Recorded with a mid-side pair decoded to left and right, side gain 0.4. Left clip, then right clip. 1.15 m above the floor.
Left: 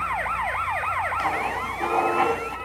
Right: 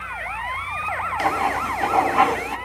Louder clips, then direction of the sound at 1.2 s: Right 4 dB; 45° right.